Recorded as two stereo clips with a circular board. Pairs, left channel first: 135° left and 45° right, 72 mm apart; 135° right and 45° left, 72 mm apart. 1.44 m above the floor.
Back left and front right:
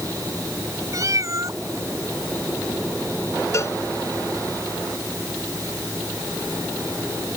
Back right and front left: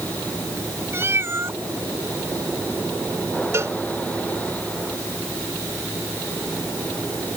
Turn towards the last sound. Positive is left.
turn(degrees=90)